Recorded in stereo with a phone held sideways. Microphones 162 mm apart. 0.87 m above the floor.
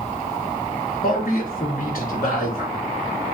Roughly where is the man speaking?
Left.